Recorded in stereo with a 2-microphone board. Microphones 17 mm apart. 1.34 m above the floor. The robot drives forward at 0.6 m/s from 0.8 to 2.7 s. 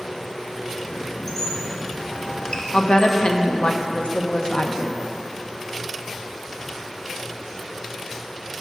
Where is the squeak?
25° left (ahead or behind), 1.0 m; by 3.1 s 55° left (ahead or behind), 0.6 m.